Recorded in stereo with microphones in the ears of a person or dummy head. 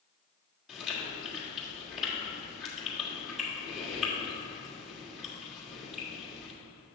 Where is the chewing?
Centre (ahead or behind), 2.5 m.